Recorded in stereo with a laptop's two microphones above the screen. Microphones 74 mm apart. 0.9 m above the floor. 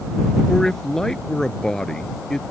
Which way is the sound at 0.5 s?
5° left (ahead or behind).